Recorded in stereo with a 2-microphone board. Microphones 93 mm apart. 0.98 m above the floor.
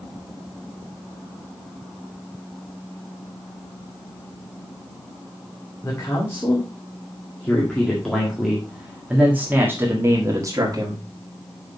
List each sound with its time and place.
5.8 s a man speaking: 30° left (ahead or behind), 2.5 m; by 11.1 s 45° right (ahead or behind), 1.8 m